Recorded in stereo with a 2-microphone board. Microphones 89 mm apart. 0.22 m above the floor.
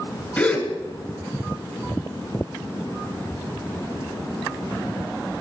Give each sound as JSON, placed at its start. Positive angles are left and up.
{"t": 0.4, "sound": "a gasp", "side_deg": 20, "distance_m": 2.0}